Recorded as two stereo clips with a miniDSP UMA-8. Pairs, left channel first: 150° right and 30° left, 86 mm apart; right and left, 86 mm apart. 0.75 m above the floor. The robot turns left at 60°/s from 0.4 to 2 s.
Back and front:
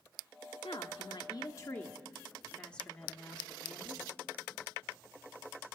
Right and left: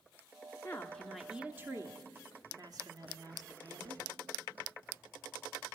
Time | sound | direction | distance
0.6 | a woman speaking | 150° right | 1.2 m